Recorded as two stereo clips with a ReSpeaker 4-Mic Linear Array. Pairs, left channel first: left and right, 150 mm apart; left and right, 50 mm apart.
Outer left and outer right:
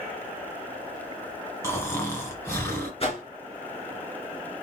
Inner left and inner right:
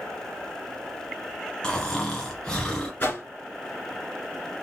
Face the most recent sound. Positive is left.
turn(degrees=40)  # may be behind; listen again after turning